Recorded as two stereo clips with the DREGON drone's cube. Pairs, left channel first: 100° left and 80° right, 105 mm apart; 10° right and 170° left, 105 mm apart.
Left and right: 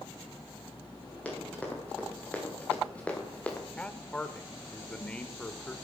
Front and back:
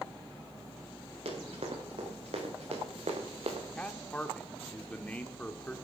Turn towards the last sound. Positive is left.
turn(degrees=40)